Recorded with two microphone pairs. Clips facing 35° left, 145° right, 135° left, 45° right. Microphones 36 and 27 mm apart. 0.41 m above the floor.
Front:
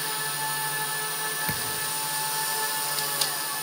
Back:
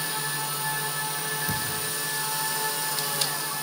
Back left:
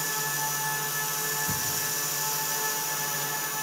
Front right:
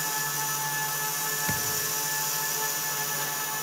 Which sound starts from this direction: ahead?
A thud, at 1.5 s.